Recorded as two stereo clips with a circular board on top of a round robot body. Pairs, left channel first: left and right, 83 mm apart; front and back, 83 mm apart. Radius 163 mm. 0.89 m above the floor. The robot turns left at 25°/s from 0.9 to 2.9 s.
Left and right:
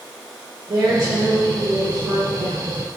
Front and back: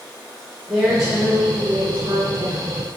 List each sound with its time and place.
0.7 s a woman speaking: 90° right, 3 m; by 2.7 s 140° right, 3 m